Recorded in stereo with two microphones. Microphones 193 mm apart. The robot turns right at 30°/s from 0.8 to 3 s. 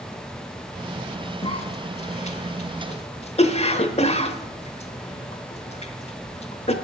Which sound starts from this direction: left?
A cough, at 1.4 s.